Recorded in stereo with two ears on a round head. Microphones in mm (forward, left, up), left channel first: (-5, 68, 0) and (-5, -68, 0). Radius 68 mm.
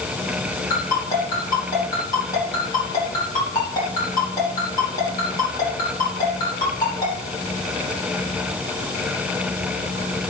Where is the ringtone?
25° left (ahead or behind), 10 m.